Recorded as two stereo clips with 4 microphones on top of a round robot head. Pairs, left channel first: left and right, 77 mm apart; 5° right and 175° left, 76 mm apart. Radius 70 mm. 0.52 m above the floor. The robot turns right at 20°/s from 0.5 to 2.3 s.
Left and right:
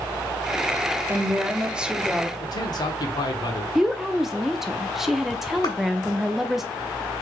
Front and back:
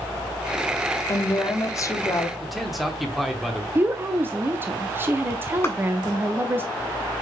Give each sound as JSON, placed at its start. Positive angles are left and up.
{"t": 1.1, "sound": "a woman speaking", "azimuth_deg": -30, "distance_m": 0.9}
{"t": 2.4, "sound": "a man speaking", "azimuth_deg": 85, "distance_m": 1.1}
{"t": 3.8, "sound": "a woman speaking", "azimuth_deg": -170, "distance_m": 0.7}
{"t": 5.6, "sound": "a clap", "azimuth_deg": 50, "distance_m": 3.0}